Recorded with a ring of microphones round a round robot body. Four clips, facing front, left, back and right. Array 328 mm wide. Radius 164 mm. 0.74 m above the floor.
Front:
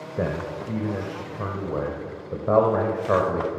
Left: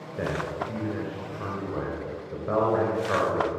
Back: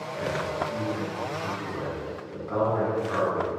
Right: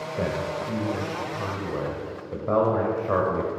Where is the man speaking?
20° right, 3 m.